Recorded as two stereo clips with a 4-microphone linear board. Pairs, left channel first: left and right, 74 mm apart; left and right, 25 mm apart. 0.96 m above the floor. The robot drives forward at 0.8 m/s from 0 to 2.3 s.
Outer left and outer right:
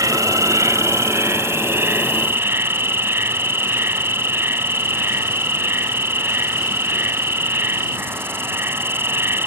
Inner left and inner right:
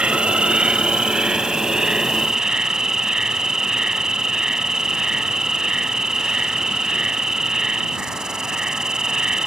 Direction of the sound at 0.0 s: 50° right (ahead or behind).